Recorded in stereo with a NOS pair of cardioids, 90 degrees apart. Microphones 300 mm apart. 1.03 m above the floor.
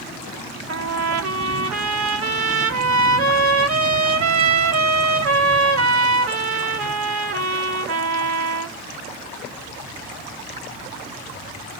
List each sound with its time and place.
0.7 s a trumpet: 50° right, 2 m